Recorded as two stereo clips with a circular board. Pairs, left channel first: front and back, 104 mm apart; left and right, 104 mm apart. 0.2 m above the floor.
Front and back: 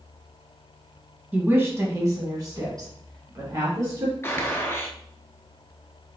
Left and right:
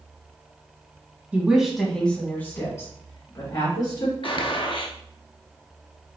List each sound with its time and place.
1.3 s a woman speaking: 140° right, 1.3 m; by 4.1 s 130° left, 3 m
4.2 s a gunshot: 65° left, 0.7 m